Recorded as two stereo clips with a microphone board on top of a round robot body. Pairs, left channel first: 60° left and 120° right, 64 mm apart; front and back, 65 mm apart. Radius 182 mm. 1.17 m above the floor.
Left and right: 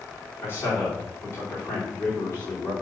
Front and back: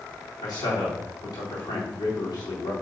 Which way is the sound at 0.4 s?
10° left.